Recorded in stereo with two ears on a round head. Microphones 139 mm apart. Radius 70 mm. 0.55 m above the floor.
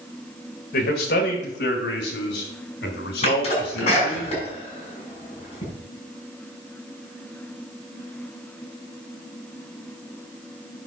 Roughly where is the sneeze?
Left.